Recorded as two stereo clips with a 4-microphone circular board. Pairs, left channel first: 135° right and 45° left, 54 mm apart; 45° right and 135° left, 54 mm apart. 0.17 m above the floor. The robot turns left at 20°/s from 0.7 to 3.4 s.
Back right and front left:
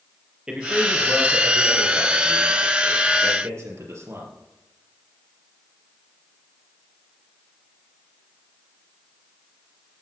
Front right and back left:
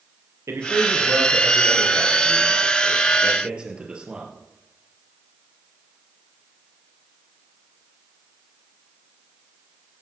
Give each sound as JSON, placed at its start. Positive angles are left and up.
{"t": 0.5, "sound": "a man speaking", "azimuth_deg": 120, "distance_m": 4.0}